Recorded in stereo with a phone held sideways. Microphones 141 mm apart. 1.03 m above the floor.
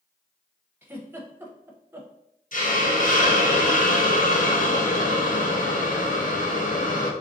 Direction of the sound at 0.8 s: 15° right (ahead or behind).